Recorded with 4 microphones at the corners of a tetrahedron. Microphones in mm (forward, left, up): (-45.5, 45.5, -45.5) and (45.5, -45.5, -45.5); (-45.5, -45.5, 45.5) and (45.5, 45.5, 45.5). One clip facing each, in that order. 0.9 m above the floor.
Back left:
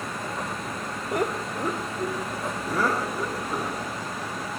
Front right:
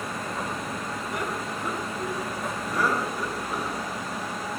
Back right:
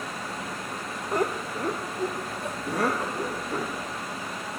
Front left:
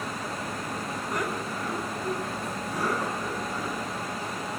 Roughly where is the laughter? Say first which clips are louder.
Back left 7 dB, back right 6 dB; behind.